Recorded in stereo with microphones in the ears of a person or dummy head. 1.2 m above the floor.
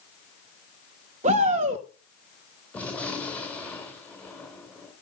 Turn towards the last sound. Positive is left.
turn(degrees=5)  # may be behind; listen again after turning